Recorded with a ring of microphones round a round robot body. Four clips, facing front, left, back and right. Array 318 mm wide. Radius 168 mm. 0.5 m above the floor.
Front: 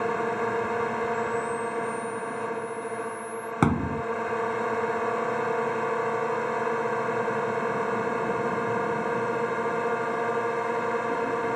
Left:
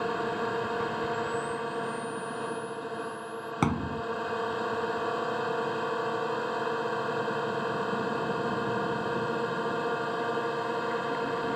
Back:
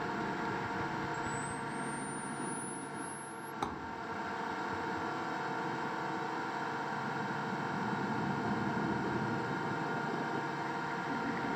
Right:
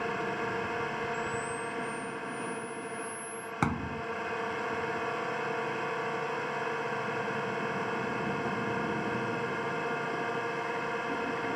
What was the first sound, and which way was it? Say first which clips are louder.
A drone: left 3 dB, front 10 dB; 20° left.